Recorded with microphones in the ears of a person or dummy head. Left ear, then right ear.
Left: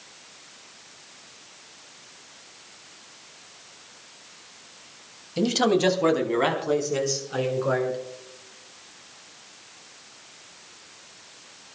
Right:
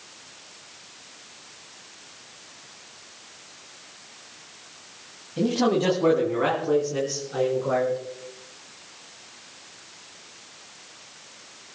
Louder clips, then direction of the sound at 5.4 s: Left 1 dB; 80° left.